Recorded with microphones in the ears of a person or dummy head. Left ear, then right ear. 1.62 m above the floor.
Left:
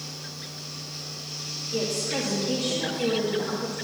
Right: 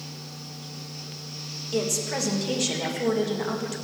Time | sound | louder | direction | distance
0.0 | a fan | left 3 dB | 15° left (ahead or behind) | 5 m
1.7 | a woman speaking | right 1 dB | 75° right (ahead or behind) | 1.7 m